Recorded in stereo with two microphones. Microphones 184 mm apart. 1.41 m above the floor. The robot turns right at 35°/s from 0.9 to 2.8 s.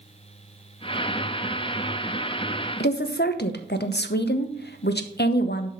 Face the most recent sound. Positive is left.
turn(degrees=65)  # may be behind; listen again after turning